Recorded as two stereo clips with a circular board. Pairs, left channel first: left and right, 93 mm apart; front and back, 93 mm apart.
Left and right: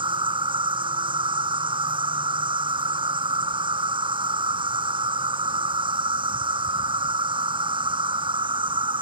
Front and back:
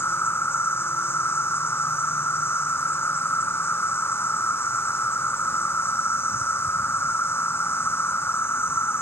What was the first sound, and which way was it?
An insect, 65° right.